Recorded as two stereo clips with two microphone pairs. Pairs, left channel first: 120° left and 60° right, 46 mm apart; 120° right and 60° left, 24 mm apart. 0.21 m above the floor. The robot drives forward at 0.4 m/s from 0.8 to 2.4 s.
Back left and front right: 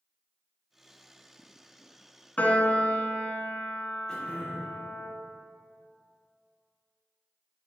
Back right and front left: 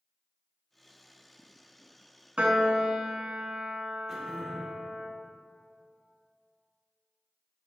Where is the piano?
65° left, 0.5 m; by 5.1 s 70° left, 0.5 m.